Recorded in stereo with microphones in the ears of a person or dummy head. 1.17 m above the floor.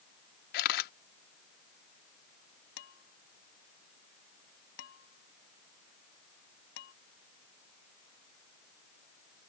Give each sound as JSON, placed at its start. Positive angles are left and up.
{"t": 0.5, "sound": "a camera shutter", "side_deg": 65}
{"t": 2.8, "sound": "dishes clattering", "side_deg": 75}